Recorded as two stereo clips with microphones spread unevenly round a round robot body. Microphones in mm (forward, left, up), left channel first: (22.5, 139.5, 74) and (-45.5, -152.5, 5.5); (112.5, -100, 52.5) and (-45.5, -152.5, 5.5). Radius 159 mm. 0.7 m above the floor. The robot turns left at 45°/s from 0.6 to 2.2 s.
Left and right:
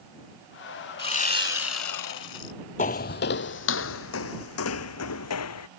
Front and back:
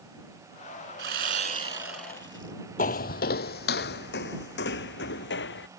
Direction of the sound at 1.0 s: 150° left.